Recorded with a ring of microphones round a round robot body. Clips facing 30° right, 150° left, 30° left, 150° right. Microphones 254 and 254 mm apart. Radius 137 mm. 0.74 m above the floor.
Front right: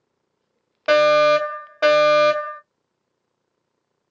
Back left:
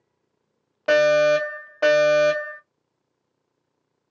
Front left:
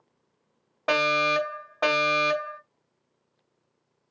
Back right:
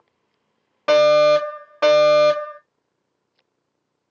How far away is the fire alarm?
About 1.9 m.